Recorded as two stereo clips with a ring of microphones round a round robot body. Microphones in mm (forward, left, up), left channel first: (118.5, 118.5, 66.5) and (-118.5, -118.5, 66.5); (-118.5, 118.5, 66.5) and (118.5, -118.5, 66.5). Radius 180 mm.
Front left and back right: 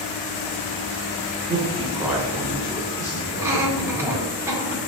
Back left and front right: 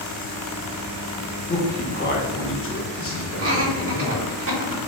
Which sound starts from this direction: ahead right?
Laughter, at 3.4 s.